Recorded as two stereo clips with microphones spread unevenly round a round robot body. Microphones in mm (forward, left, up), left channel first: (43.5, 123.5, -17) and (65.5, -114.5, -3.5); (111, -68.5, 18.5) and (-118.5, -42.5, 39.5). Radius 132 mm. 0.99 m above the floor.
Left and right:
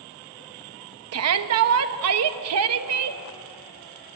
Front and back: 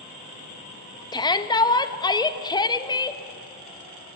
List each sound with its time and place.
1.1 s a shout: 75° right, 1.2 m